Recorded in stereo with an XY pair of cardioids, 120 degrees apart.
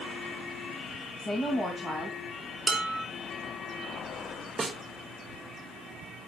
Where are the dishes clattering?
5° right, 1.8 m.